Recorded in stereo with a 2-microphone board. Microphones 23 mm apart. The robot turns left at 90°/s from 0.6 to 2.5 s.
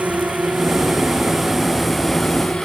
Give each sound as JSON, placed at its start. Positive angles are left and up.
{"t": 0.0, "sound": "a drone", "side_deg": -75}